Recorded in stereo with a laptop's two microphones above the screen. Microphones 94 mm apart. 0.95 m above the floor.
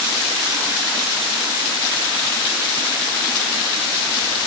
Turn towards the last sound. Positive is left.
No sound to turn to.